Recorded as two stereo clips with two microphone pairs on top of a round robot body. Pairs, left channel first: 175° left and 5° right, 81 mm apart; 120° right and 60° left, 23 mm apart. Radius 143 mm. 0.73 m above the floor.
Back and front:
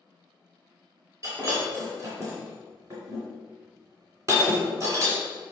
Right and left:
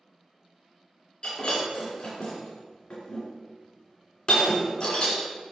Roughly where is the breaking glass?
Ahead right.